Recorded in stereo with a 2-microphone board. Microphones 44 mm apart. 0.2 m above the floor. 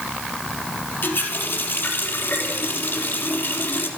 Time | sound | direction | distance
1.0 | a running tap | 60° left (ahead or behind) | 3.5 m